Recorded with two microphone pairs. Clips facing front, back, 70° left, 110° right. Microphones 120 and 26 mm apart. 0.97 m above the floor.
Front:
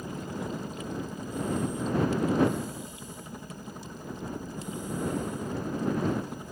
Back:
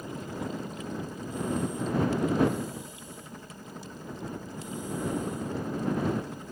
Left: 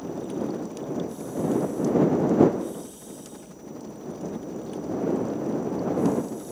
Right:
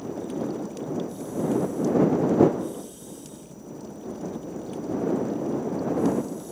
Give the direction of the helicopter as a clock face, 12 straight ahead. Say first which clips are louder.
Even, even; 10 o'clock.